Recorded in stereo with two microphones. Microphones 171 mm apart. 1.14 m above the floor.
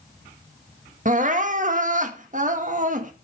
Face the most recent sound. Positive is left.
turn(degrees=-50)  # may be behind; listen again after turning